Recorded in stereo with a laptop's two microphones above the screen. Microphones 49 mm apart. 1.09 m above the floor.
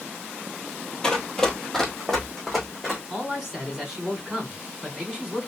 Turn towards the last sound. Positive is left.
turn(degrees=-5)  # may be behind; listen again after turning